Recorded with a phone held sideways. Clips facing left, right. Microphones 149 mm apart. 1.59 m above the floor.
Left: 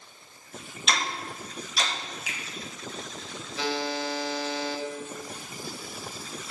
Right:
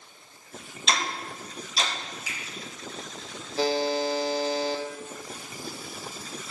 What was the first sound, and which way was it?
Ticking, 30° right (ahead or behind).